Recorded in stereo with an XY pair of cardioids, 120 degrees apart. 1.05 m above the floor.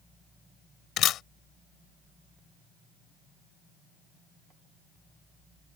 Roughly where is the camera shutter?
Left.